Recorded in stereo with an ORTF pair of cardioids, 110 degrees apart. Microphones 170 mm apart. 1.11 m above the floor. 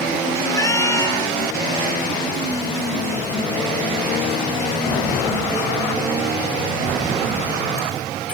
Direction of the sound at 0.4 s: 15° left.